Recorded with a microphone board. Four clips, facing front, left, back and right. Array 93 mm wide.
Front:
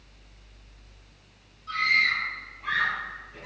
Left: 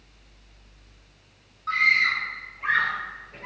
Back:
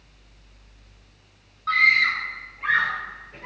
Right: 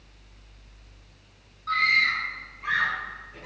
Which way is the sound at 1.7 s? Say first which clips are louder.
Left 1 dB, back 5 dB; 165° left.